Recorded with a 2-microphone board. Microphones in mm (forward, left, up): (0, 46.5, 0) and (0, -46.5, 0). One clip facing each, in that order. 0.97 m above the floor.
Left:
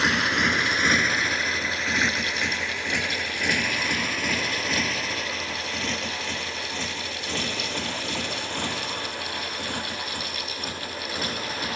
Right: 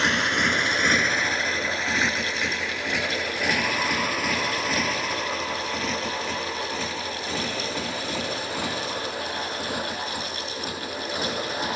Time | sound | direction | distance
0.0 | a motorcycle | 5° left (ahead or behind) | ?